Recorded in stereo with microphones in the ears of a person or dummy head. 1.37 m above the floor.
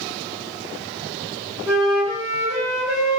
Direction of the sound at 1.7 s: 10° left (ahead or behind).